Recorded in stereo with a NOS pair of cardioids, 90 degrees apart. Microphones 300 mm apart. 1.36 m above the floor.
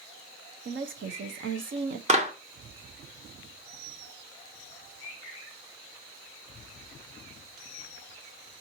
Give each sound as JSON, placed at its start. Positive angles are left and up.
{"t": 0.7, "sound": "a woman speaking", "azimuth_deg": -45, "distance_m": 1.1}
{"t": 2.1, "sound": "a clap", "azimuth_deg": -25, "distance_m": 1.3}